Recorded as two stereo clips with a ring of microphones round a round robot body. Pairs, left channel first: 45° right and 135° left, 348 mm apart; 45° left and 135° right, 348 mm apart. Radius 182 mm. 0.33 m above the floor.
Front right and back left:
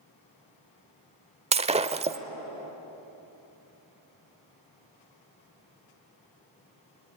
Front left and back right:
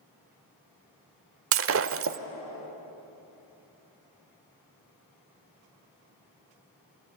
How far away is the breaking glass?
About 0.9 m.